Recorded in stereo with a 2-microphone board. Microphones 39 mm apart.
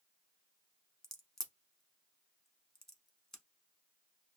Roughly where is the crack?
Centre.